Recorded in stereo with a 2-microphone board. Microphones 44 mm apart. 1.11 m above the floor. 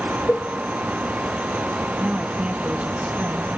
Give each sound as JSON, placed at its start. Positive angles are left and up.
{"t": 0.3, "sound": "a cowbell", "side_deg": 45, "distance_m": 1.7}
{"t": 2.0, "sound": "a woman speaking", "side_deg": -30, "distance_m": 1.6}